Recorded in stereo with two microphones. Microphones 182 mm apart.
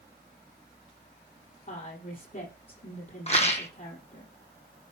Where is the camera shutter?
No camera shutter in this recording.